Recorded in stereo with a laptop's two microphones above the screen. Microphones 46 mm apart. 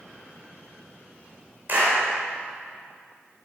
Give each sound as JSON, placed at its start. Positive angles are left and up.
{"t": 1.7, "sound": "a clap", "side_deg": -45, "distance_m": 3.5}